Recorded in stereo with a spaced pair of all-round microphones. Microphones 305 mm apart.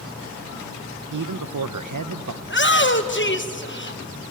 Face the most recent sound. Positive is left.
turn(degrees=40)  # may be behind; listen again after turning